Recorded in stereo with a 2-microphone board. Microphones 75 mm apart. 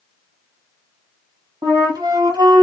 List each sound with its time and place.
1.6 s a flute: 60° right (ahead or behind), 1.5 m